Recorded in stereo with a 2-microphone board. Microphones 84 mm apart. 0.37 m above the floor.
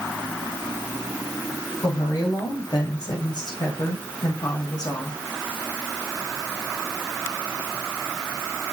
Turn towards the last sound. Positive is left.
turn(degrees=50)  # may be behind; listen again after turning